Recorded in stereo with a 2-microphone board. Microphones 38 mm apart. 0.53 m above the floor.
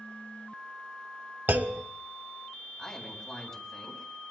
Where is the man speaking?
10° left (ahead or behind), 3.5 m.